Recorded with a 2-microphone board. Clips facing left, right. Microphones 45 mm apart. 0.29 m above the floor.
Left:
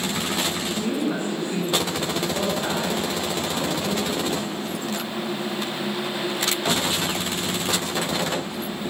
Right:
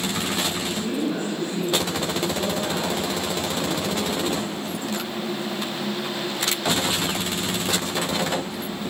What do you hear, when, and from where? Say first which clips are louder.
0.8 s a woman speaking: left 2 dB; 65° left (ahead or behind), 3.5 m